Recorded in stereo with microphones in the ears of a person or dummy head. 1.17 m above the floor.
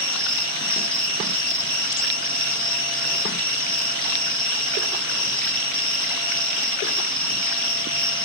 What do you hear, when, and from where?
0.0 s an insect: 5° left (ahead or behind), 0.9 m